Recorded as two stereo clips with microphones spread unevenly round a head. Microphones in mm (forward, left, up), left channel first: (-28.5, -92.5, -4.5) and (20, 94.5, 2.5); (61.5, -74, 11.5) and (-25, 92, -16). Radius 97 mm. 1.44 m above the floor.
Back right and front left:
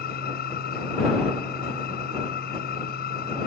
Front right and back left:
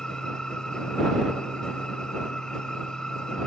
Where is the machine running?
150° right.